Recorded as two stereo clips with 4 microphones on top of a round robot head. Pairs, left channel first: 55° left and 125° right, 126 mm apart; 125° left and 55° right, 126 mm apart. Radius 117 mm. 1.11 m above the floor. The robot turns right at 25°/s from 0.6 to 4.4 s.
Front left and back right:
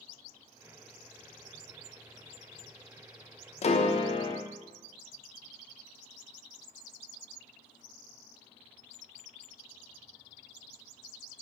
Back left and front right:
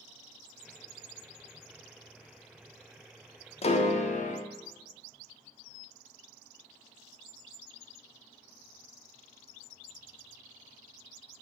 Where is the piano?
90° left, 1.1 m; by 4.4 s 110° left, 1.1 m.